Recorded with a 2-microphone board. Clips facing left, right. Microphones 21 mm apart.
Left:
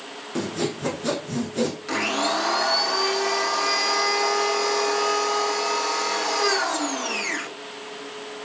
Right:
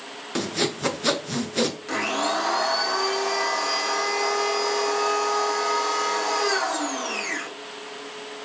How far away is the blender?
About 1.3 m.